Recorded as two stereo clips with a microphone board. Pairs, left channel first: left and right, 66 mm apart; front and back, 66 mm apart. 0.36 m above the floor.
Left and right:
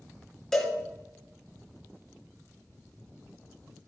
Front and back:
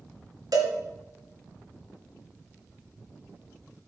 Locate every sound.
0.5 s a cowbell: 170° left, 2 m